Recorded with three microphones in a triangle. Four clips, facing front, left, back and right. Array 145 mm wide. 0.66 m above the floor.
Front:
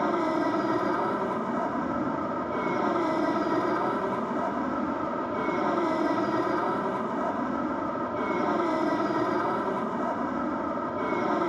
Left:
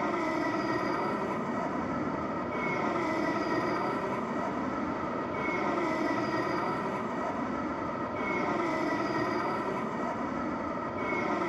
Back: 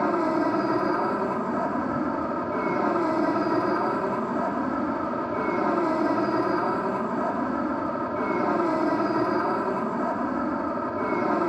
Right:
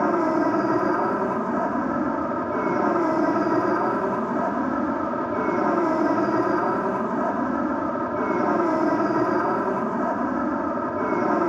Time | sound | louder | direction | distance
0.0 | an aircraft | right 9 dB, back 2 dB | 100° right | ?